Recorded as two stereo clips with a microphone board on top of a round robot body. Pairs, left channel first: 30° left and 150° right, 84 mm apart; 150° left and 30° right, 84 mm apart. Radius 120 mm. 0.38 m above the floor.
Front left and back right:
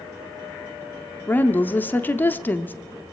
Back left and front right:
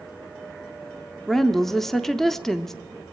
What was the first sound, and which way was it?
A woman speaking, 70° left.